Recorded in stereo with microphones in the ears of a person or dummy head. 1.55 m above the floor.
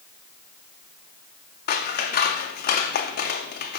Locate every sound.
1.7 s scissors: 50° left (ahead or behind), 0.6 m